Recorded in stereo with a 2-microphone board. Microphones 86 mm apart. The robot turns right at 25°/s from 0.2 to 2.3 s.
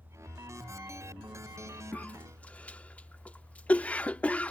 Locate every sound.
1.9 s a cough: 20° left (ahead or behind); by 4.5 s 15° left (ahead or behind)